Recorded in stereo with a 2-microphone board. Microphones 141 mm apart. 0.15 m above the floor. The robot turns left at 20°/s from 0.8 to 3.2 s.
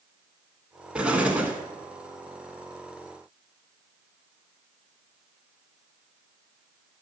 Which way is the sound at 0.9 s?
5° right (ahead or behind).